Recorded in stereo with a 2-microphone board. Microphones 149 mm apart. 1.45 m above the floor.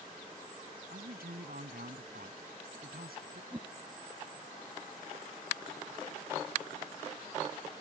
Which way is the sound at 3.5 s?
20° right (ahead or behind).